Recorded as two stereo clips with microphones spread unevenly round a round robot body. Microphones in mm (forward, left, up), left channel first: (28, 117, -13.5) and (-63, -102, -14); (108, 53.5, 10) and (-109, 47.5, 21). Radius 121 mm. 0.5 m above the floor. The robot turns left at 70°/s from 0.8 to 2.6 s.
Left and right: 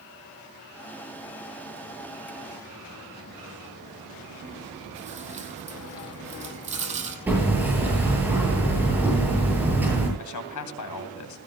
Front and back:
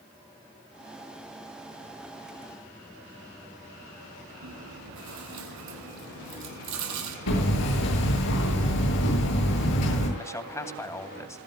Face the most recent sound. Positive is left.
turn(degrees=80)